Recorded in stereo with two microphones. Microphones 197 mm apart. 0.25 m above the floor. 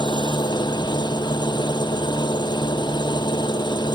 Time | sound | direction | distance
0.0 | an engine running | 20° left (ahead or behind) | ?